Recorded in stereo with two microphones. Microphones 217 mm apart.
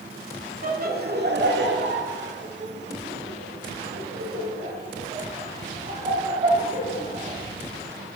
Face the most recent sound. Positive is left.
turn(degrees=-35)  # may be behind; listen again after turning